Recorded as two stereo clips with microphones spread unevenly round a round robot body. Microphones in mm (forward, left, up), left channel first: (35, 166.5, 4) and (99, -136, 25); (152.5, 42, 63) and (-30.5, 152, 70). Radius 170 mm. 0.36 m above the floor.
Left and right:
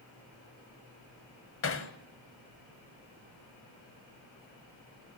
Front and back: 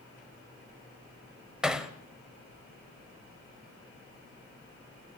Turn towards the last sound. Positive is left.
turn(degrees=60)